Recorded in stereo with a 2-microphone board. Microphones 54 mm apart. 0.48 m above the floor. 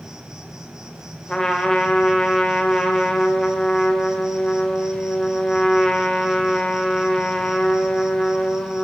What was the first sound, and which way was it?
An insect, 15° right (ahead or behind).